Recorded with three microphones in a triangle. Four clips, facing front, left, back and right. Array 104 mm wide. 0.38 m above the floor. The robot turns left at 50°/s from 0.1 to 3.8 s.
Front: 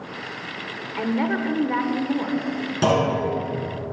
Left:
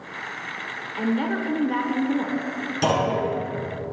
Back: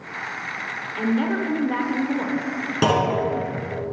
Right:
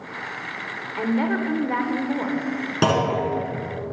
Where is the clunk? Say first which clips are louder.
Right 1 dB, even; 120° right, 2.5 m; by 3.2 s 135° right, 2.5 m.